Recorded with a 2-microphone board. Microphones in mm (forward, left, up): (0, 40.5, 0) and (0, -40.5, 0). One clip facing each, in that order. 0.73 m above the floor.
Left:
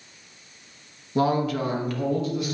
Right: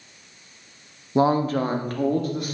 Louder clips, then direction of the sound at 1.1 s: Right 3 dB; 20° right (ahead or behind).